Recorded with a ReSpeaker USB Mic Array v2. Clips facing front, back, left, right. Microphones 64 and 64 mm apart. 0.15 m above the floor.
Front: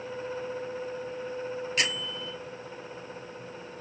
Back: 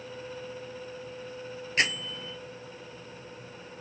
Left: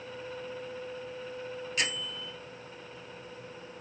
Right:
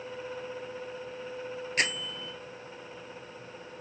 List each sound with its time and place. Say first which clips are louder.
1.8 s a bell: back 5 dB, right 4 dB; 125° right, 0.8 m